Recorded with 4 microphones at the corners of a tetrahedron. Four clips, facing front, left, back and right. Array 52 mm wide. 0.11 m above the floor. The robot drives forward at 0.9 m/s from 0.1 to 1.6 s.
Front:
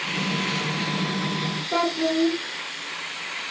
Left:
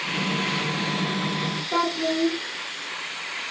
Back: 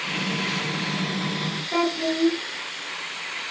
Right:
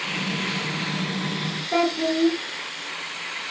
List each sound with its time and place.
1.7 s a child speaking: 10° right, 0.6 m